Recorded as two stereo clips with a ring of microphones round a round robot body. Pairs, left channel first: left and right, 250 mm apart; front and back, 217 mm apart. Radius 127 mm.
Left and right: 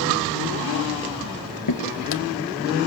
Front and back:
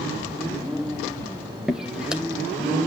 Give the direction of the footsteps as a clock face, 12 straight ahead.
9 o'clock.